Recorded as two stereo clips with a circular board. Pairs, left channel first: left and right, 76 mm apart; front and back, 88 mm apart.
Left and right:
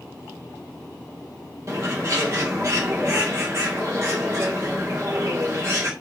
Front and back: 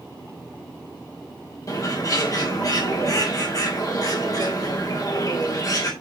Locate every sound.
1.7 s a bird: 45° right, 3 m